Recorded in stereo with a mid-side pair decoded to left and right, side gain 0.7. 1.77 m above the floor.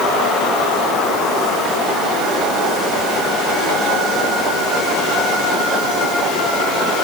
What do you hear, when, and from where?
Only background noise.